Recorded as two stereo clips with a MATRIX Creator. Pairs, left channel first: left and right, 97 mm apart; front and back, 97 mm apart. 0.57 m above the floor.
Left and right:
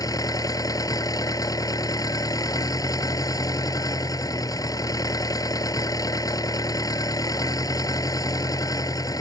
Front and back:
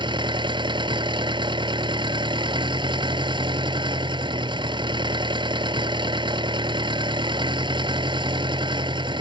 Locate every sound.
0.0 s an engine running: 140° left